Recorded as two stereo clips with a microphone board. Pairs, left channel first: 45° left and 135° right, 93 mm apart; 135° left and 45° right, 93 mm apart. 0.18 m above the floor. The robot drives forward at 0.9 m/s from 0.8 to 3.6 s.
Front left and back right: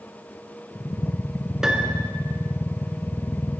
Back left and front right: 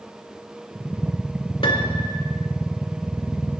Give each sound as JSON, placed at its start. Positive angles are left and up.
{"t": 1.6, "sound": "a piano", "azimuth_deg": 140, "distance_m": 0.6}